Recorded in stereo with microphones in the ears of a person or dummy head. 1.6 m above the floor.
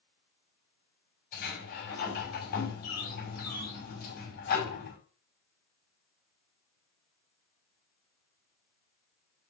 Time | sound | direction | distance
1.3 | a sliding door | 50° left (ahead or behind) | 5 m